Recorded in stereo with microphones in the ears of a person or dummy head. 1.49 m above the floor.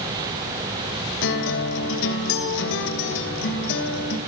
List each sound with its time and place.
1.2 s a guitar: 65° left (ahead or behind), 3 m